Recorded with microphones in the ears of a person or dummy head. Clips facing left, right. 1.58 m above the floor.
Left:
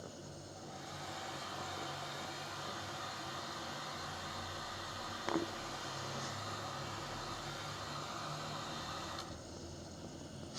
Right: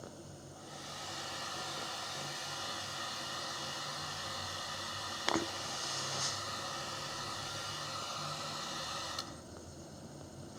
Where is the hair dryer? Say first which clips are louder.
Even; 35° right (ahead or behind), 10 m.